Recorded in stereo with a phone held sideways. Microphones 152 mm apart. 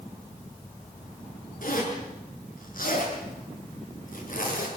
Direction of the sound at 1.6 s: 65° left (ahead or behind).